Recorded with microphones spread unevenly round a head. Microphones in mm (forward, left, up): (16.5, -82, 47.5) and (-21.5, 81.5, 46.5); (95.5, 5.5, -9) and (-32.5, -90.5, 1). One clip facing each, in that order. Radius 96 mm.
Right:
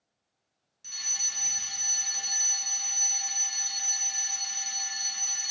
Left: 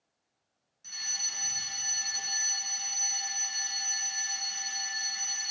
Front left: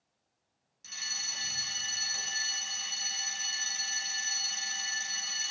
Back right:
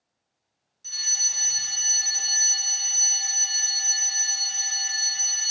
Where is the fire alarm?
35° right, 1.6 m.